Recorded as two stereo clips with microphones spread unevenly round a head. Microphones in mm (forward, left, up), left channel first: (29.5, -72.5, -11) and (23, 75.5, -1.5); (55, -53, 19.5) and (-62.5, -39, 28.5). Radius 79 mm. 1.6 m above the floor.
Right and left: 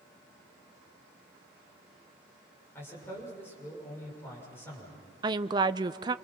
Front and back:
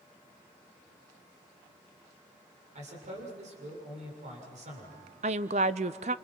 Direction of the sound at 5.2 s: 150° left.